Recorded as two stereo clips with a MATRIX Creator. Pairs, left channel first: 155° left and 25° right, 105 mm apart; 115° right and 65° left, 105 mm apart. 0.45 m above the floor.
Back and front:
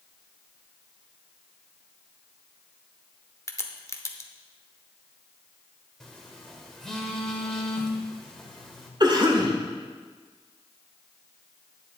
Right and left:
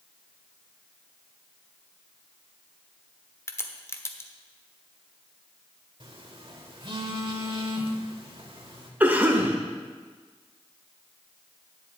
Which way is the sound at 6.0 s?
75° left.